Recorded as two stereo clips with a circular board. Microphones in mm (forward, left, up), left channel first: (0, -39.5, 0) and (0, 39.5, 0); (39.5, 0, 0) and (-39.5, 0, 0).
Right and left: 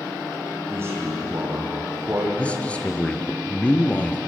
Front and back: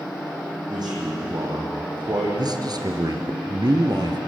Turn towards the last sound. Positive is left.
turn(degrees=-160)